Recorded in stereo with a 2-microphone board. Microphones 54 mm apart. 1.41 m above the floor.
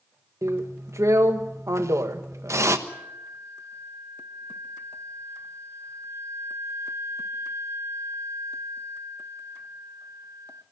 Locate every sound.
0.4 s a drill: 75° right (ahead or behind), 1.3 m
2.9 s a flute: 75° right (ahead or behind), 1.1 m